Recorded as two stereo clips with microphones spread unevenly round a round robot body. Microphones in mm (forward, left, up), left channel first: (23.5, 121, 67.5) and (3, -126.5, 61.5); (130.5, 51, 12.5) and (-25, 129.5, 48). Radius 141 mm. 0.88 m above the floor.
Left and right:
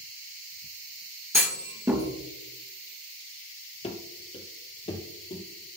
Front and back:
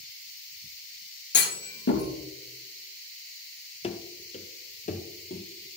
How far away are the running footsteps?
About 1.1 m.